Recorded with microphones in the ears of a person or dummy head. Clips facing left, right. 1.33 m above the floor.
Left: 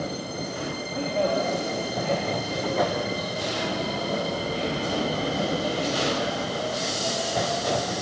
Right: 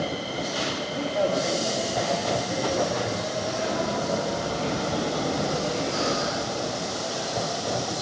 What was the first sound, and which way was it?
A man speaking, 5° right (ahead or behind).